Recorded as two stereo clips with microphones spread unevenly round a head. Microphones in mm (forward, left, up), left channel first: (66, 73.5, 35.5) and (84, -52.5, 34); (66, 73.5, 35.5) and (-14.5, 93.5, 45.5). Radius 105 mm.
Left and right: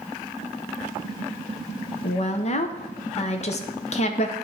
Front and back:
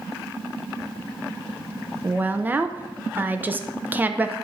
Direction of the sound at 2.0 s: 95° left.